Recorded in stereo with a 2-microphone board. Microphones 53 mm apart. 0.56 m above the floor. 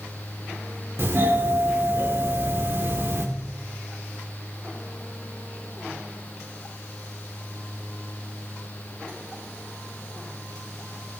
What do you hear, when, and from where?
1.0 s a doorbell: 50° right (ahead or behind), 2 m